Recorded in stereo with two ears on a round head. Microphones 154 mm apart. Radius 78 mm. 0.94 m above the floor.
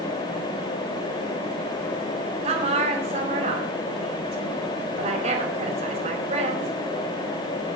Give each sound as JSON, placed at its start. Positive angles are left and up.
{"t": 2.4, "sound": "a woman speaking", "side_deg": -45, "distance_m": 4.0}